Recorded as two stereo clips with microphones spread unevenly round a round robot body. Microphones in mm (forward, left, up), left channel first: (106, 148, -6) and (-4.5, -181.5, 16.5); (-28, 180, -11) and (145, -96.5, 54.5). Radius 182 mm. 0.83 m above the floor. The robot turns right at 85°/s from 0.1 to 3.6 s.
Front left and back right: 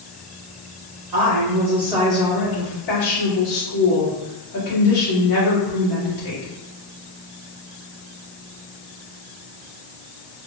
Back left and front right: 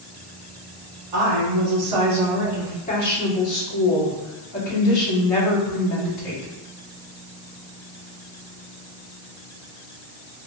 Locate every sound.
1.1 s a woman speaking: 90° right, 1.9 m; by 6.5 s 120° left, 1.9 m